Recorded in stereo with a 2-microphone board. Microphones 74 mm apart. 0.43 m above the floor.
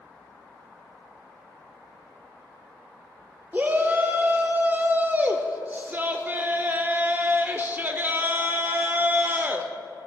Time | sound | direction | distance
3.5 | a shout | 25° right (ahead or behind) | 0.8 m